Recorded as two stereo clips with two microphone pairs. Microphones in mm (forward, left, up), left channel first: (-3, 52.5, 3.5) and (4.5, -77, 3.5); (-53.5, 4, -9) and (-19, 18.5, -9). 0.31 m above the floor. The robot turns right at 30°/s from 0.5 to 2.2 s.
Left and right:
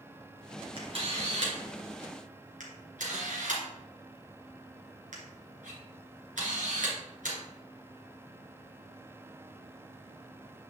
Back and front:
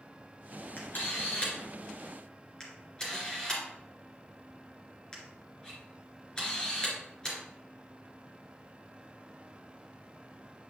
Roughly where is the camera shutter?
Behind right.